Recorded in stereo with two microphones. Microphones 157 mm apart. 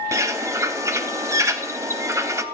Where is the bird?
20° right (ahead or behind), 0.5 m.